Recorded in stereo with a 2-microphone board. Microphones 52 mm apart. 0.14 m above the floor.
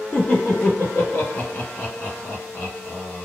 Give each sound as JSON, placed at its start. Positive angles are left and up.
{"t": 0.1, "sound": "laughter", "side_deg": 35, "distance_m": 2.0}